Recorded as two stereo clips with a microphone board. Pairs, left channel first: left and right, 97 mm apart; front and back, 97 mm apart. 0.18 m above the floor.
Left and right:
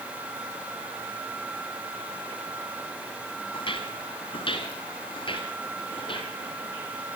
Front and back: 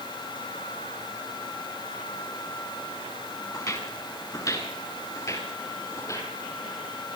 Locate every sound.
3.5 s footsteps: 55° left, 5.5 m; by 6.3 s 60° left, 9.5 m